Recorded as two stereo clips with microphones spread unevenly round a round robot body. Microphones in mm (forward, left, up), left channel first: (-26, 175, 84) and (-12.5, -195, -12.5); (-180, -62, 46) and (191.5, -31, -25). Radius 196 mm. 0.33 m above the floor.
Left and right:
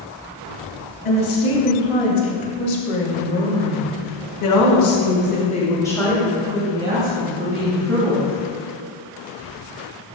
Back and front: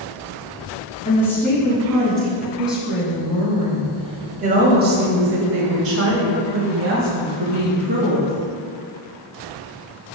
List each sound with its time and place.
1.1 s a woman speaking: 95° left, 3 m; by 8.3 s 45° right, 2 m